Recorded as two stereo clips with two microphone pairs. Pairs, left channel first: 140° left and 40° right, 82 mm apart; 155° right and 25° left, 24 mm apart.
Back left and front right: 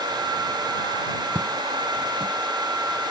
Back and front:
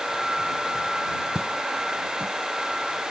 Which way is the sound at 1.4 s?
20° left.